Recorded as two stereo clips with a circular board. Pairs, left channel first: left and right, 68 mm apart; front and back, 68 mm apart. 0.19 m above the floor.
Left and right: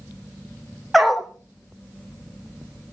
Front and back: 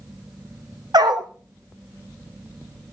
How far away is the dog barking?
About 1.7 m.